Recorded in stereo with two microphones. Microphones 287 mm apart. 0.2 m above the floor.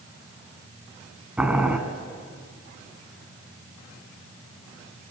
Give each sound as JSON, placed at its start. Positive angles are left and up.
{"t": 1.4, "sound": "boiling", "side_deg": -5, "distance_m": 2.0}